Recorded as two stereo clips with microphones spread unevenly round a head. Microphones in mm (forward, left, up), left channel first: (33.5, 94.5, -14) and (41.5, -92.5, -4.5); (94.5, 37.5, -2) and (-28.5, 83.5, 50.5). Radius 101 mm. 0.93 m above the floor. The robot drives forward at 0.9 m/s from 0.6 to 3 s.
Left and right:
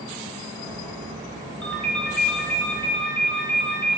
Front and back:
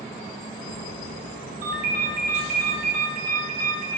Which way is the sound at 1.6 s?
Straight behind.